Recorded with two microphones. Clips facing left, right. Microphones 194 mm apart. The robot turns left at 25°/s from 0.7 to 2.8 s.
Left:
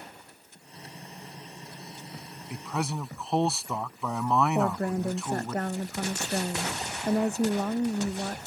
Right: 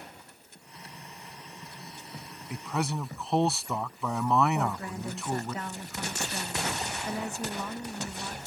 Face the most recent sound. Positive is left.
turn(degrees=50)  # may be behind; listen again after turning